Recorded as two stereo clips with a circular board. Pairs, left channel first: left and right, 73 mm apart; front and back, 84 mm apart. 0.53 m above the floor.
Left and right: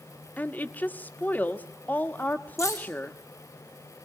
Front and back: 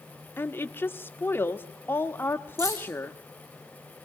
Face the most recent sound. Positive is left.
turn(degrees=135)